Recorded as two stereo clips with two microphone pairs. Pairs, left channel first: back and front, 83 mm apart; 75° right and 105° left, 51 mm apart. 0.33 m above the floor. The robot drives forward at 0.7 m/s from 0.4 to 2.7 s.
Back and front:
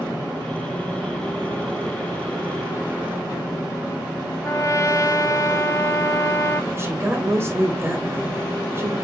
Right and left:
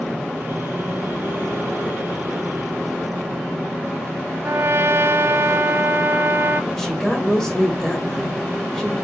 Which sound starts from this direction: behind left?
A trumpet, at 4.4 s.